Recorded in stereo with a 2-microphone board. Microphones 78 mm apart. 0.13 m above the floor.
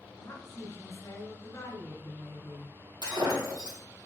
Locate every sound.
0.2 s a woman speaking: 35° left (ahead or behind), 1.9 m
3.0 s breaking glass: 50° right (ahead or behind), 3 m